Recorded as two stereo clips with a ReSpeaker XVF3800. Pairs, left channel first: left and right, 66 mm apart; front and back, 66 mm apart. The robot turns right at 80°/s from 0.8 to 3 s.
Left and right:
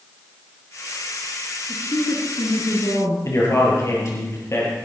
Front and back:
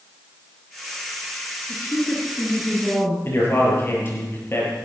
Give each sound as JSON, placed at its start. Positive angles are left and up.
{"t": 1.7, "sound": "a woman speaking", "azimuth_deg": 30, "distance_m": 8.5}
{"t": 3.2, "sound": "a man speaking", "azimuth_deg": 45, "distance_m": 7.0}